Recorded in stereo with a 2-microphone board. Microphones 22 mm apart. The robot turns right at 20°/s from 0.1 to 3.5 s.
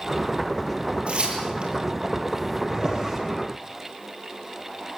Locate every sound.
1.1 s tearing paper: 70° right (ahead or behind), 7.5 m; by 1.7 s 55° right (ahead or behind), 7.5 m
2.7 s a drawer: 40° right (ahead or behind), 7.5 m; by 3.2 s 30° right (ahead or behind), 7.5 m